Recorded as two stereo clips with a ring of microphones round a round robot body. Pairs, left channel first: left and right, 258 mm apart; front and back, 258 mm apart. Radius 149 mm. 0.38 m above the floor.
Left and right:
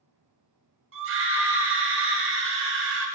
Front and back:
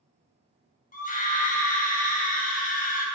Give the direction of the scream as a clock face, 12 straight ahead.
2 o'clock.